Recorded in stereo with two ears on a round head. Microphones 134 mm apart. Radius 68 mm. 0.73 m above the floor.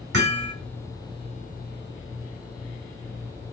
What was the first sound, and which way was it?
Hammering, 85° right.